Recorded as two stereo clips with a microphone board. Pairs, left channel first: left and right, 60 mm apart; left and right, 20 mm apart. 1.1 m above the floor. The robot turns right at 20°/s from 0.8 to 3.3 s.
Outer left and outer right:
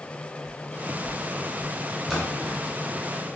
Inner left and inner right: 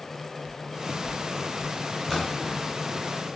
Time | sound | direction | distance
0.4 | footsteps | 25° left (ahead or behind) | 1.8 m
2.1 | a splash | 5° right (ahead or behind) | 2 m